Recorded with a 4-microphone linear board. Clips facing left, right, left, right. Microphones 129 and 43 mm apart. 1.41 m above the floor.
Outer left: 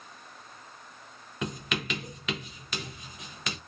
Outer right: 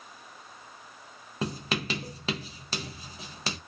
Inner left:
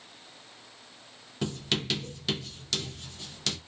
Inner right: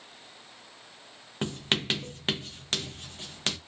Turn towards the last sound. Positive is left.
turn(degrees=-35)  # may be behind; listen again after turning